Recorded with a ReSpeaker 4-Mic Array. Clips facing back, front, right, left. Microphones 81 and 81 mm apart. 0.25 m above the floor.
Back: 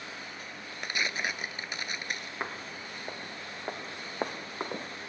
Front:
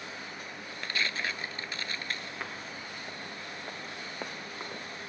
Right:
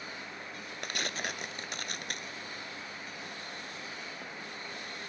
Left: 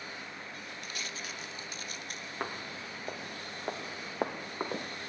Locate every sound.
0.8 s tearing paper: 110° right
2.4 s footsteps: 115° left; by 5.1 s 125° left